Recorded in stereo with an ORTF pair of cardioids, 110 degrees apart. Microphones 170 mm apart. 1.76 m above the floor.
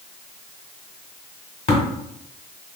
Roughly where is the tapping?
Ahead left.